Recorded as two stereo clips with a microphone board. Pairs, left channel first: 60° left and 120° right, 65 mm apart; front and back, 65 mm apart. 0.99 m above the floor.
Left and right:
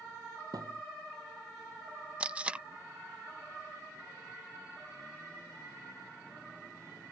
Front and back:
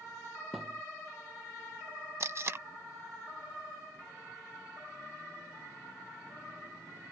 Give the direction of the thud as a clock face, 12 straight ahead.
3 o'clock.